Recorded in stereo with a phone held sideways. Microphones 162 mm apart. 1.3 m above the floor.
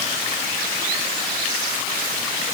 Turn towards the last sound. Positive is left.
No sound to turn to.